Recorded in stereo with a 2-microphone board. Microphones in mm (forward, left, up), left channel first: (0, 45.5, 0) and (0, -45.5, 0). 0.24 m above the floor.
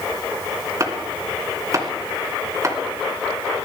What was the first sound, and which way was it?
Chopping, 30° right (ahead or behind).